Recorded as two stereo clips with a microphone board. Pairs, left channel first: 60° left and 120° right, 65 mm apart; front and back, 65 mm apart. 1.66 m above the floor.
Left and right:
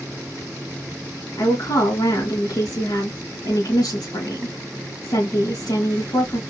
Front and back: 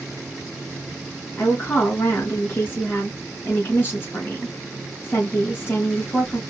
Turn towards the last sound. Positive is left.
turn(degrees=55)